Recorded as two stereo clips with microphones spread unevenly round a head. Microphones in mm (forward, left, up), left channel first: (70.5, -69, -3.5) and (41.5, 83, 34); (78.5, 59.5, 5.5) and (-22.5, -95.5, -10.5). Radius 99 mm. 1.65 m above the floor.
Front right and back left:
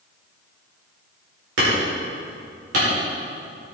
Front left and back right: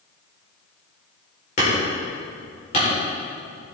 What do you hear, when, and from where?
1.6 s hammering: 110° left, 4.5 m